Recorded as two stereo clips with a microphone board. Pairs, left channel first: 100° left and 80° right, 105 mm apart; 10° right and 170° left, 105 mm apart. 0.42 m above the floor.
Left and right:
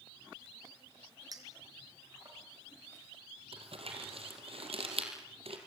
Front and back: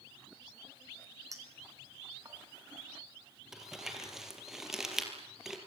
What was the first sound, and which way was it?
A clink, 135° right.